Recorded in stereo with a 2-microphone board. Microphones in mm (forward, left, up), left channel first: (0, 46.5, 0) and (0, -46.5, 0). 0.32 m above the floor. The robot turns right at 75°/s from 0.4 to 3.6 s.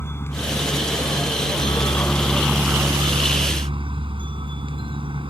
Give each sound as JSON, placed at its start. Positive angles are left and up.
{"t": 0.0, "sound": "a helicopter", "azimuth_deg": 30}